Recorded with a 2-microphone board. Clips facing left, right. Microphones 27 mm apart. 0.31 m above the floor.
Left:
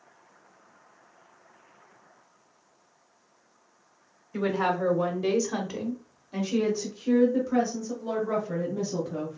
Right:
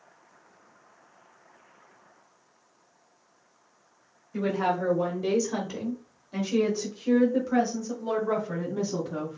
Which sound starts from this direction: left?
A woman speaking, at 4.3 s.